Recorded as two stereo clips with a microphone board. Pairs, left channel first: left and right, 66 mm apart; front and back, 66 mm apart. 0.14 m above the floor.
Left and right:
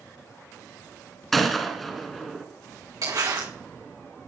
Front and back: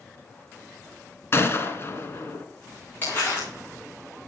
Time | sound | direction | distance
1.3 | a gunshot | 5° left | 1.3 m
3.0 | crumpling | 65° right | 5 m